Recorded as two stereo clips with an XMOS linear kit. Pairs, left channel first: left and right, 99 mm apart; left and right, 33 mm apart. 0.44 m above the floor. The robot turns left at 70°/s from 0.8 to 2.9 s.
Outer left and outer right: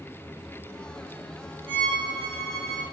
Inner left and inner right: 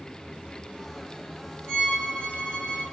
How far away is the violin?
About 1.8 m.